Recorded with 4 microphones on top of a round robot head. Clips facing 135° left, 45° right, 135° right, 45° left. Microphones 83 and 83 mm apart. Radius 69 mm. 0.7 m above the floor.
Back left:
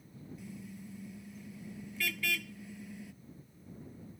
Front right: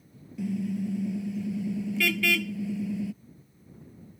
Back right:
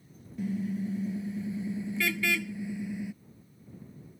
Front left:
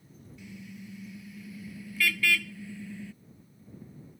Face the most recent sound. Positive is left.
turn(degrees=-60)